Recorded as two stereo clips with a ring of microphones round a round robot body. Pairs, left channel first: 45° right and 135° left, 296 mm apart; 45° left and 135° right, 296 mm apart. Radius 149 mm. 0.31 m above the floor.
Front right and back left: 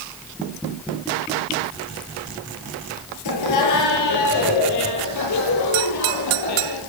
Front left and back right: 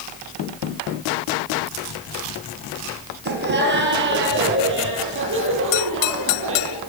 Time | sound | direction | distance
3.2 | laughter | 75° right | 7.5 m